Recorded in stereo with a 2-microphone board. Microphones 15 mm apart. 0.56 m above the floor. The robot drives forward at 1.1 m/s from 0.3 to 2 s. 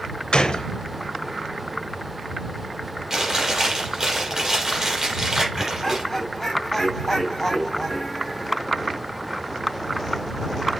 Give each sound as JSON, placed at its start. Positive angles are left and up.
{"t": 0.3, "sound": "a gunshot", "side_deg": 85, "distance_m": 0.7}
{"t": 3.1, "sound": "chewing", "side_deg": -30, "distance_m": 5.0}
{"t": 5.5, "sound": "laughter", "side_deg": 20, "distance_m": 3.0}